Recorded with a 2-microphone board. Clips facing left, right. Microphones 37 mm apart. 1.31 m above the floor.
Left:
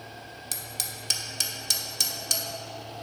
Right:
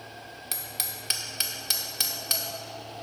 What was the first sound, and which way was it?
Hammering, 20° right (ahead or behind).